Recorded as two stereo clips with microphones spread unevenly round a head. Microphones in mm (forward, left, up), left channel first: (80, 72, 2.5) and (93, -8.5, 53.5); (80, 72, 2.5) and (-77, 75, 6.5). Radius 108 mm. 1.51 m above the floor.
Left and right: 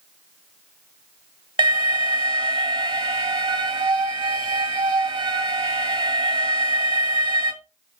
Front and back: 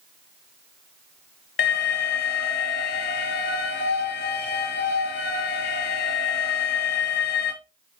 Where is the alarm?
45° right, 1.4 m.